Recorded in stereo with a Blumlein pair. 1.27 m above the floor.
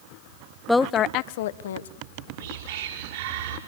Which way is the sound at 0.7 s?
Straight ahead.